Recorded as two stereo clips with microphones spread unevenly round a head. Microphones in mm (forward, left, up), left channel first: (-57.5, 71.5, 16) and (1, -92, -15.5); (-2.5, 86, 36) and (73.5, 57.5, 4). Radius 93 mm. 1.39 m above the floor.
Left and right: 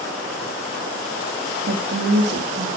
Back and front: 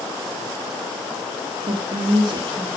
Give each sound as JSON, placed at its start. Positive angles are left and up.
{"t": 1.7, "sound": "a woman speaking", "azimuth_deg": -35, "distance_m": 3.0}